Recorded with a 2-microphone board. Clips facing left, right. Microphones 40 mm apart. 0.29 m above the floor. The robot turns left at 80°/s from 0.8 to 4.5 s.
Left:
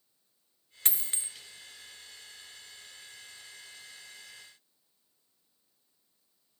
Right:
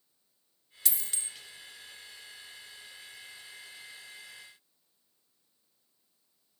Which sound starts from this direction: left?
A dropped coin, at 0.8 s.